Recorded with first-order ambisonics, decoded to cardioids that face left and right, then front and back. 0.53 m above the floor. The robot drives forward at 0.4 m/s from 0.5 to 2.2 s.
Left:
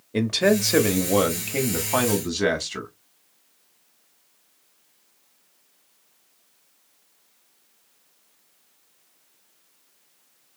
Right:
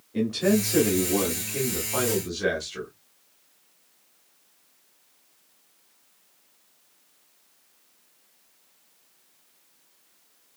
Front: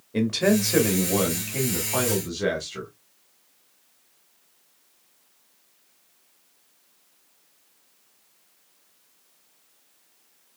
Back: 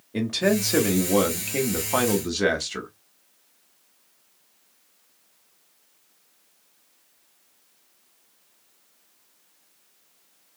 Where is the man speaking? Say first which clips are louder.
Left 4 dB, front 1 dB; 85° left, 1.0 m; by 2.9 s 135° left, 1.2 m.